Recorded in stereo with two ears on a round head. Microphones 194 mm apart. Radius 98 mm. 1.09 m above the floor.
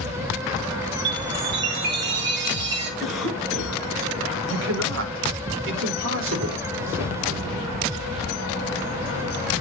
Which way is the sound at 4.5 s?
65° right (ahead or behind).